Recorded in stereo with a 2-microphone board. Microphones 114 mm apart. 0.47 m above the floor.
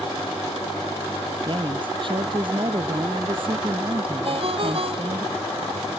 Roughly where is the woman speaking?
Right.